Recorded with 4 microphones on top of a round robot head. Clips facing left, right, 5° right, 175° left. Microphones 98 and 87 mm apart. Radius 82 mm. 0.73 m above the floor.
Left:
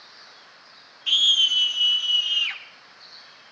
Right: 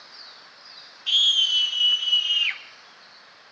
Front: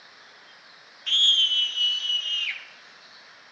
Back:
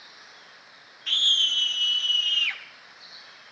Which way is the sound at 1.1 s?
90° left.